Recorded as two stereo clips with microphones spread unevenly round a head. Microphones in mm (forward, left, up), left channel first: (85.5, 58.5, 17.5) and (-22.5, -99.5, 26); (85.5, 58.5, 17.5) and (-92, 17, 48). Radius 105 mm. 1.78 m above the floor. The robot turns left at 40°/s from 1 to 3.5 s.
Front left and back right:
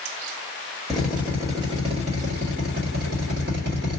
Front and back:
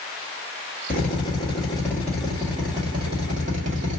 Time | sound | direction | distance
0.9 | a drill | 40° right | 1.7 m